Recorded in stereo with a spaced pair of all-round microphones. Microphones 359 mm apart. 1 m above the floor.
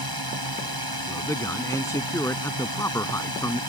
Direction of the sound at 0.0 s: 80° right.